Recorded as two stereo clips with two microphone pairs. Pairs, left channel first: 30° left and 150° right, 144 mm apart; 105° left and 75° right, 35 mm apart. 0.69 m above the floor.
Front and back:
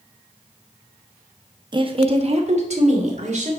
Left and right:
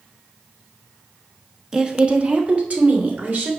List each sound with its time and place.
1.7 s a woman speaking: 135° right, 1.1 m; by 3.5 s 120° right, 3 m